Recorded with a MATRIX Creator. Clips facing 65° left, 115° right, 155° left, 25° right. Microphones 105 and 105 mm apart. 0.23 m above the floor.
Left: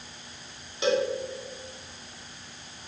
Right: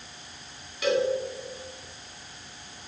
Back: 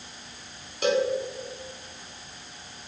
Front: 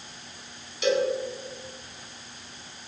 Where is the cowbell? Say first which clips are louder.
Even, even; 125° left, 2.5 m.